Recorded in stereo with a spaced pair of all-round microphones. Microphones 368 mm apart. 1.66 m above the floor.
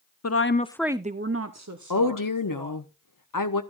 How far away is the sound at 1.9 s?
About 0.7 m.